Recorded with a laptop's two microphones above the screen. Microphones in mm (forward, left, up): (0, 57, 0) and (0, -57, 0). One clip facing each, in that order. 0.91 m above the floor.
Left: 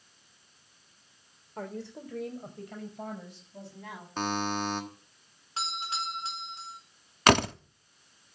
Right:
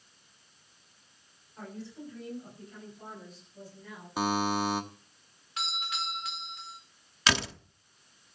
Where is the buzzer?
10° right (ahead or behind), 1.3 m.